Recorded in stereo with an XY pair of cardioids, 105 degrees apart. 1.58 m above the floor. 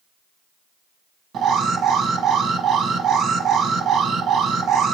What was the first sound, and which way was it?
An alarm, 65° right.